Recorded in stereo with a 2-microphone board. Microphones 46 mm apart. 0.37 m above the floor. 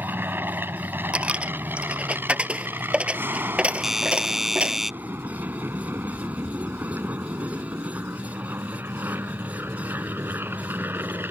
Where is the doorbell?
5° right (ahead or behind).